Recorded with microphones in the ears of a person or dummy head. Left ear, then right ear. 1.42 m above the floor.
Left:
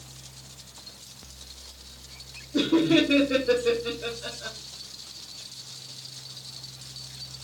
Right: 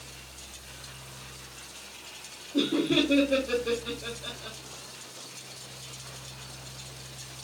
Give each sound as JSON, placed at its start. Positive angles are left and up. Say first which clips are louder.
{"t": 2.5, "sound": "laughter", "louder": "left 4 dB", "side_deg": 55, "distance_m": 1.2}